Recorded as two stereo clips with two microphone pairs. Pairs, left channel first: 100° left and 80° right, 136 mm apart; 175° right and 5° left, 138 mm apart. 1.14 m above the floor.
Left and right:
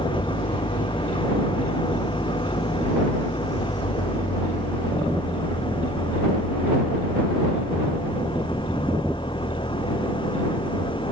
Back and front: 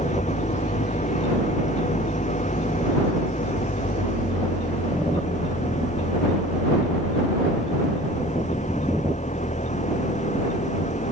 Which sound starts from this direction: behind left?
An engine running, at 0.0 s.